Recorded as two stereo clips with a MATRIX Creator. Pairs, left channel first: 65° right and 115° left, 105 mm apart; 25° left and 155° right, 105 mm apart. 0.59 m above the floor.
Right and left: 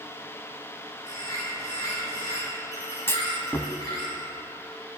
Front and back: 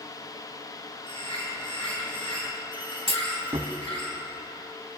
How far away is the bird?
About 5 m.